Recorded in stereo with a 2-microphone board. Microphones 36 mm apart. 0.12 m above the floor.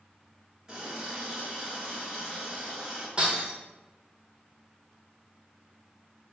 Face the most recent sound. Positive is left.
turn(degrees=-30)  # may be behind; listen again after turning